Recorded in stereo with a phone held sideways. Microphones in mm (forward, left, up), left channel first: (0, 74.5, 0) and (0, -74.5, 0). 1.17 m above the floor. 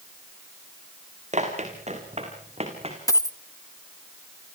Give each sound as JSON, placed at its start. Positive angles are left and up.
{"t": 1.3, "sound": "running footsteps", "side_deg": -50, "distance_m": 5.5}
{"t": 3.1, "sound": "a dropped coin", "side_deg": 25, "distance_m": 0.8}